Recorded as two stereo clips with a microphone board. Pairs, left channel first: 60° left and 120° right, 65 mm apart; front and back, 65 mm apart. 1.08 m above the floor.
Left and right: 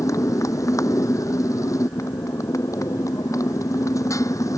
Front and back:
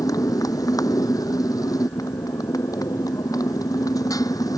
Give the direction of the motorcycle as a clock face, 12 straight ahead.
11 o'clock.